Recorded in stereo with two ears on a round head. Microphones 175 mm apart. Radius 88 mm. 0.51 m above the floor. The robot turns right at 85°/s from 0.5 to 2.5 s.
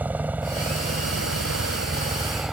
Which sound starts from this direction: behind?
A helicopter, at 0.0 s.